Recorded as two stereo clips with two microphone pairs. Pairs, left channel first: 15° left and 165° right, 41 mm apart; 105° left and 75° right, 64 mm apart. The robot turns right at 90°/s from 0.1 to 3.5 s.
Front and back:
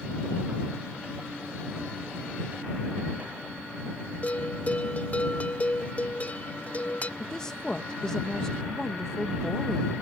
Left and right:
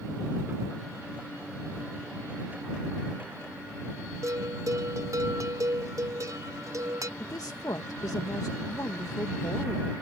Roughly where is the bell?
Ahead right.